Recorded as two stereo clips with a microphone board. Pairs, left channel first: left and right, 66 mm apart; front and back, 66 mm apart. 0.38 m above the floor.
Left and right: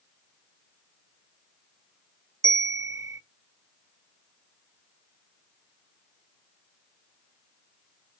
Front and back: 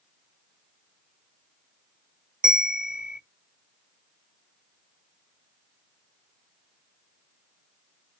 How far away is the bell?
About 1.1 m.